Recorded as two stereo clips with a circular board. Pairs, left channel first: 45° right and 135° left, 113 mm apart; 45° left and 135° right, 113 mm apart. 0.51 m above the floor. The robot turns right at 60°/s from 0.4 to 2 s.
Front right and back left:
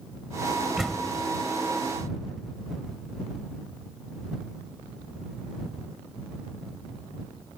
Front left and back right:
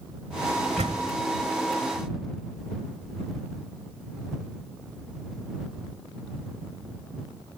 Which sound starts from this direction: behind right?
A door slam, at 0.8 s.